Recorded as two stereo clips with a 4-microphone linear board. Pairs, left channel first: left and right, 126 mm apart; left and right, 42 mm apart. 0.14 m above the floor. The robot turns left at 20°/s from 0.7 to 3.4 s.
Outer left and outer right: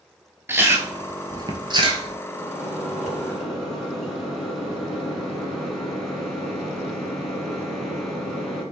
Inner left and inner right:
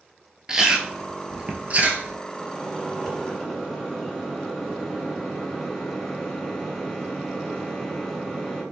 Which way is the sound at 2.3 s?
5° right (ahead or behind).